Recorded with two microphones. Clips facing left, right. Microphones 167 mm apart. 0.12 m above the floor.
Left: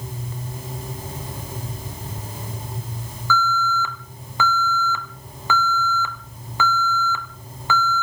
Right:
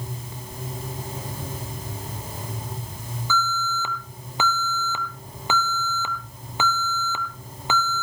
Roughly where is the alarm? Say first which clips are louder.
Left 5 dB; right.